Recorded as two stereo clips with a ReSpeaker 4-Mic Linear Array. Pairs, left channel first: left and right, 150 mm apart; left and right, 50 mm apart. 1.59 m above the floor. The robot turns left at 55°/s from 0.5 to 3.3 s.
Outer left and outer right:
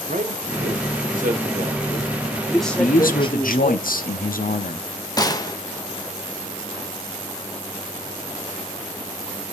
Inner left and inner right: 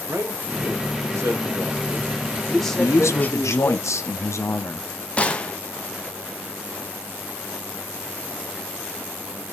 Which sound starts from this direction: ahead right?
A man speaking, at 0.1 s.